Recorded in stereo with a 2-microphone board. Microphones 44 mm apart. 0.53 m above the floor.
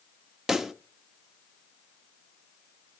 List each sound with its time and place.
0.5 s a pop: 10° right (ahead or behind), 0.7 m